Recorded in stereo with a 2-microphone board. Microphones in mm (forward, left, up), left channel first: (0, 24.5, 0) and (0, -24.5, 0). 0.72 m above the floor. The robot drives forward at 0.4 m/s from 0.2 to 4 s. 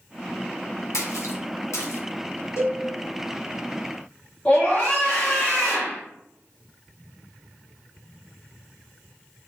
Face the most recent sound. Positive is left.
turn(degrees=20)  # may be behind; listen again after turning